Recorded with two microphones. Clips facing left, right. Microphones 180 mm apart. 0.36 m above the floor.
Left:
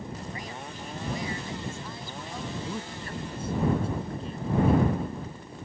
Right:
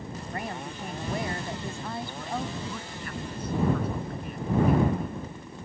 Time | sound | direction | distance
0.3 | a woman speaking | 65° right (ahead or behind) | ?
2.6 | a man speaking | 30° left (ahead or behind) | ?